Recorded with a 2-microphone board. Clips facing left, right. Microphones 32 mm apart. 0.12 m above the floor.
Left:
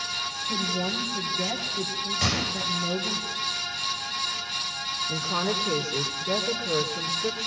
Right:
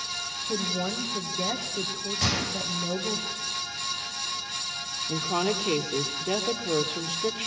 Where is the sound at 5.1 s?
50° right (ahead or behind), 3 m.